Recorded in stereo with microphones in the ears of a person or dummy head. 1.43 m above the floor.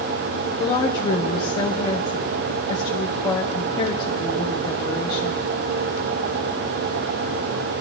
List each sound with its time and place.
0.6 s a woman speaking: 25° left (ahead or behind), 1.3 m